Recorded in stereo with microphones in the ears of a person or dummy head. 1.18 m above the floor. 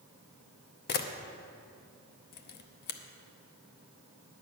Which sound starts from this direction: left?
A camera shutter, at 0.9 s.